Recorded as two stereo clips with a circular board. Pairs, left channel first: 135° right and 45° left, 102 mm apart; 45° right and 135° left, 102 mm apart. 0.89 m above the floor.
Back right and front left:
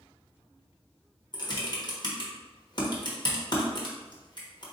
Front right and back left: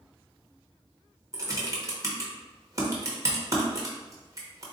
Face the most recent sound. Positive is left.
turn(degrees=-170)